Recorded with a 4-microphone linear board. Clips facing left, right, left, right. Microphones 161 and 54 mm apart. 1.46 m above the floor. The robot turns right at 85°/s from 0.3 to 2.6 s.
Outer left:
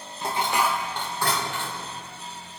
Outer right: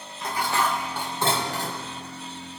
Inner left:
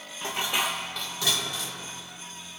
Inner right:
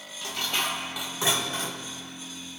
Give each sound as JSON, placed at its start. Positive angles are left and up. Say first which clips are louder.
{"t": 0.2, "sound": "dishes clattering", "louder": "outer left 1 dB, inner left 2 dB", "azimuth_deg": 135, "distance_m": 0.8}